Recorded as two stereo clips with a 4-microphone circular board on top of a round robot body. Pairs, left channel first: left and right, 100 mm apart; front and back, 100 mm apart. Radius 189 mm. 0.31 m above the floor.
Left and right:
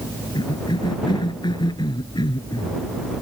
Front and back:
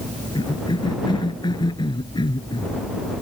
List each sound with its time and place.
0.3 s a cough: 45° left